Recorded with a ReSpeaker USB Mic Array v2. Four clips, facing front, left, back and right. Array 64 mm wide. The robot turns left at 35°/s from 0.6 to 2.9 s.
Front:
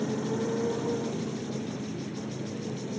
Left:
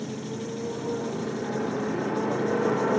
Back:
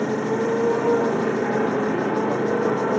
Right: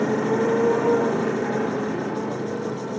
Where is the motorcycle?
125° right; by 3.0 s 155° left.